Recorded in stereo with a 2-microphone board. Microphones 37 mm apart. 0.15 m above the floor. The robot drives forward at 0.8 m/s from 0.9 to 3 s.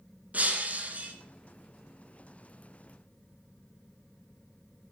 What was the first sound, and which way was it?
Breaking glass, 45° right (ahead or behind).